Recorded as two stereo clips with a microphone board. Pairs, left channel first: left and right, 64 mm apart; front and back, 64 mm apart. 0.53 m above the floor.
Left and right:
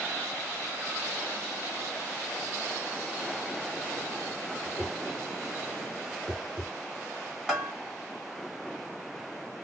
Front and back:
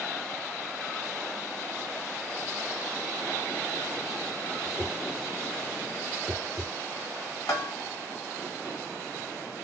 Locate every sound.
4.6 s a whoosh: 30° right, 3 m
7.5 s a bell: 10° right, 1.8 m